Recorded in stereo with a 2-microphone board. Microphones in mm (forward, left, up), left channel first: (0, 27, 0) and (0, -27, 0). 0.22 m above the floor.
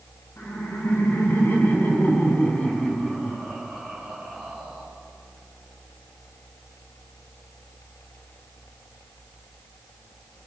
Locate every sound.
0.4 s laughter: 55° left (ahead or behind), 2 m; by 4.9 s 5° right (ahead or behind), 2.5 m